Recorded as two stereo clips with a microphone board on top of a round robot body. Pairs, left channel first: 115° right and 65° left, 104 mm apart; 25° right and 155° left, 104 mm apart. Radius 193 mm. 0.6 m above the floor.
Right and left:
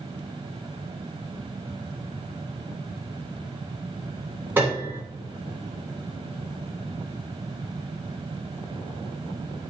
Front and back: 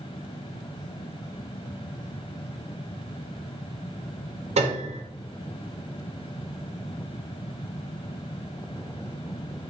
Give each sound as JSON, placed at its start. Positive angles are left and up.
{"t": 4.6, "sound": "a piano", "azimuth_deg": 140, "distance_m": 1.2}